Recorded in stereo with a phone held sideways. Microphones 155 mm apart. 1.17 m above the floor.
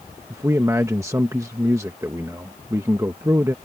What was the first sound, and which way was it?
A man speaking, 20° right (ahead or behind).